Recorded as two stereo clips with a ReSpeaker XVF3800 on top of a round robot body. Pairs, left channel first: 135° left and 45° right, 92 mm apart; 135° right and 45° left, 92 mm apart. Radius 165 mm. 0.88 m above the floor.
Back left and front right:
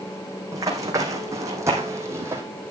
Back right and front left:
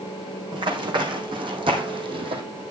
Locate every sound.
0.5 s running footsteps: 10° left, 3.5 m; by 2.4 s 20° left, 2.5 m